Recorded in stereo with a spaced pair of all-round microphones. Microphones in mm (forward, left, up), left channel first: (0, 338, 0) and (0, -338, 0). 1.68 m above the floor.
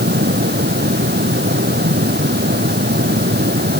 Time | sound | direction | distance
0.0 | a fan | 15° right (ahead or behind) | ?